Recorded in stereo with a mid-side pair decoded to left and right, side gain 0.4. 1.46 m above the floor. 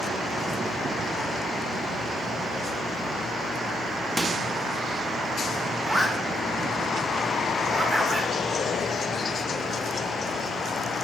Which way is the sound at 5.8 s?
10° right.